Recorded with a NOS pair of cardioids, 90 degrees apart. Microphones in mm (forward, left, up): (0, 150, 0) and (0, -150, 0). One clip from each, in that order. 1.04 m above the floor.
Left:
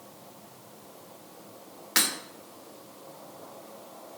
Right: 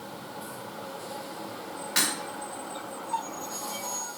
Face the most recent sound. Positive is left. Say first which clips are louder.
# left 1 dB
turn(degrees=35)